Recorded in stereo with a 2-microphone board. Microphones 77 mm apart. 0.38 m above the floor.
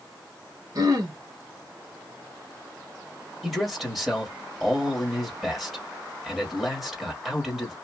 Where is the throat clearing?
55° right (ahead or behind), 0.9 m.